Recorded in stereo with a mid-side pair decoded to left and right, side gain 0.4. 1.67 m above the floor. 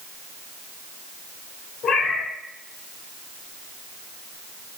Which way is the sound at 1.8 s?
60° left.